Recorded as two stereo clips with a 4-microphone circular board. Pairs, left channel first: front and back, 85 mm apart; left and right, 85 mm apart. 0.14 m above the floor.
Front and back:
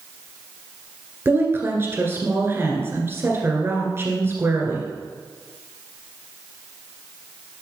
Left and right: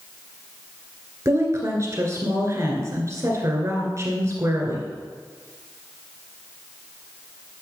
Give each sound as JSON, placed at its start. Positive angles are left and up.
{"t": 1.2, "sound": "a woman speaking", "azimuth_deg": -130, "distance_m": 2.0}